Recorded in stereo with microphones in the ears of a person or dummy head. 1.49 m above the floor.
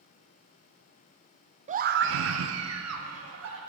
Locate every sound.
1.7 s a scream: 25° right (ahead or behind), 0.6 m; by 3.6 s 80° right, 2 m